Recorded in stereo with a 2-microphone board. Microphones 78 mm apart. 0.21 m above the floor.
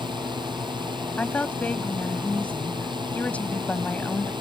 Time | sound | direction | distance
0.0 | a drone | 80° right | ?
1.2 | a woman speaking | 20° left (ahead or behind) | ?